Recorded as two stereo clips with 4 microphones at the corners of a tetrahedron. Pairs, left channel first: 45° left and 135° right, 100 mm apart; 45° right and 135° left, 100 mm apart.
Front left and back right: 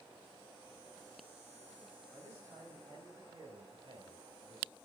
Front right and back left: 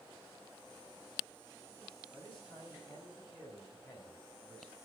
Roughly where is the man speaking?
Right.